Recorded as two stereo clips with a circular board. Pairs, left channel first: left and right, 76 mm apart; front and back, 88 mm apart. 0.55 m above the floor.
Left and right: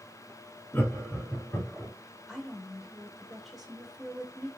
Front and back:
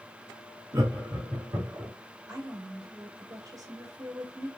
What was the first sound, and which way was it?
Laughter, 150° left.